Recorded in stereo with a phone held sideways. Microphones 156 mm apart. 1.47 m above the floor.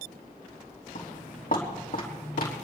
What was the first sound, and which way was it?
Footsteps, 60° left (ahead or behind).